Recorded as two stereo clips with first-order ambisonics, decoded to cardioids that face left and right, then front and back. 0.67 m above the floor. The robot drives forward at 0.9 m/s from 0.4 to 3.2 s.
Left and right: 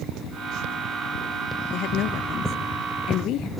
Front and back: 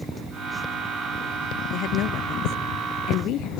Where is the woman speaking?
40° left; by 3.5 s 45° left.